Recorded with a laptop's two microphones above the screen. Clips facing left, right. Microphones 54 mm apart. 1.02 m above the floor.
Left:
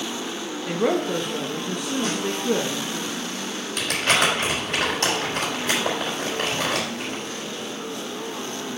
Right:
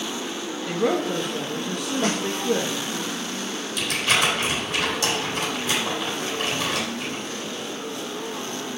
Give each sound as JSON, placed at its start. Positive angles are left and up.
{"t": 0.7, "sound": "a woman speaking", "side_deg": 10, "distance_m": 1.0}
{"t": 2.0, "sound": "a snare drum", "side_deg": -65, "distance_m": 1.5}
{"t": 3.8, "sound": "crumpling", "side_deg": 55, "distance_m": 3.5}